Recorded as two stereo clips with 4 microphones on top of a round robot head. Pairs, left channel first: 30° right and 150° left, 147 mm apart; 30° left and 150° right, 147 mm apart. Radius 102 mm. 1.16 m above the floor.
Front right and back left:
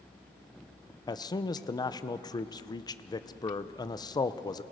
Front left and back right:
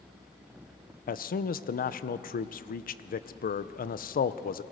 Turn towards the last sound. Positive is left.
turn(degrees=30)